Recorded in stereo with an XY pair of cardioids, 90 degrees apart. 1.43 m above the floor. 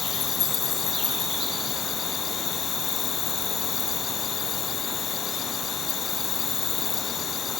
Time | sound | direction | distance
0.0 | an insect | 70° left | ?